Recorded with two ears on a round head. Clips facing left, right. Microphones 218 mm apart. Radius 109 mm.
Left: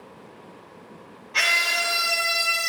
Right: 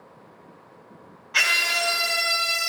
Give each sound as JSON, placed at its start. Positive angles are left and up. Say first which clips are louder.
{"t": 1.3, "sound": "a scream", "louder": "even", "side_deg": -15, "distance_m": 1.9}